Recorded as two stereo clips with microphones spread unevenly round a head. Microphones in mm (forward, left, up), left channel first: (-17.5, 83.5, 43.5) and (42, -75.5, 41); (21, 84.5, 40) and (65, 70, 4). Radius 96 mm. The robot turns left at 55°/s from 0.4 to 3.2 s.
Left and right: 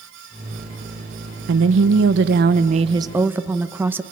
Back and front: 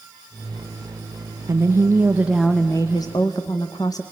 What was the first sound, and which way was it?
A woman speaking, 55° right.